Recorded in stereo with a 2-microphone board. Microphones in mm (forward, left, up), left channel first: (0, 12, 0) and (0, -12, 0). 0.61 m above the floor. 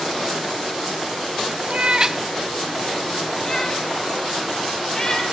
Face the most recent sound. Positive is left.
turn(degrees=35)  # may be behind; listen again after turning